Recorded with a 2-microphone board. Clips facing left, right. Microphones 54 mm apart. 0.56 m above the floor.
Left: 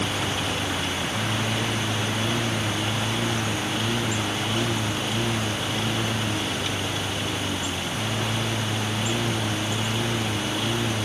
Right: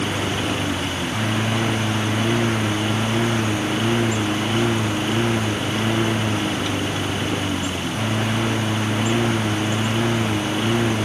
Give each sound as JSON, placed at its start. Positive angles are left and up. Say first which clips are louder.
{"t": 0.0, "sound": "a lawn mower", "louder": "right 3 dB", "side_deg": -35}